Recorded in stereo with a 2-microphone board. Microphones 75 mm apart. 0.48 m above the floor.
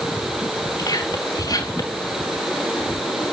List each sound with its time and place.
0.8 s whispering: 60° left (ahead or behind), 4.5 m